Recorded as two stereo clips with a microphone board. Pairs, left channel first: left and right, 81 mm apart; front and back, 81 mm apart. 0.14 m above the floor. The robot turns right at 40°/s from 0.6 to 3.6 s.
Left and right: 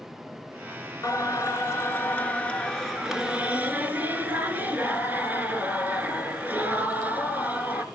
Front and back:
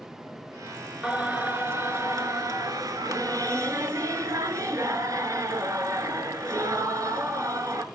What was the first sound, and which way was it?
Singing, 105° left.